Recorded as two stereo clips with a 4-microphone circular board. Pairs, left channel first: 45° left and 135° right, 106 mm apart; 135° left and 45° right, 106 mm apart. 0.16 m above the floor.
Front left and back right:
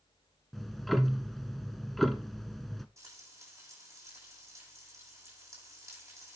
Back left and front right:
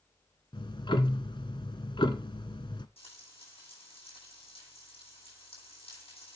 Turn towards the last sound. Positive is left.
turn(degrees=165)